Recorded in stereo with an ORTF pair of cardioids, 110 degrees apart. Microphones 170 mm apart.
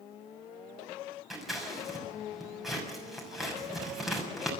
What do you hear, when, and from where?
1.3 s scissors: straight ahead, 6 m